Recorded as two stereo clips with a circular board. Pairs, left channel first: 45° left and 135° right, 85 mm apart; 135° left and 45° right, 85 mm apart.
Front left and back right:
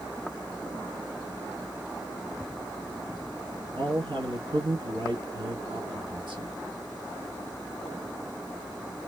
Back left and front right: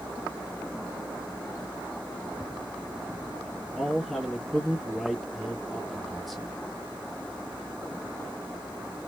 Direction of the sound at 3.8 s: 135° right.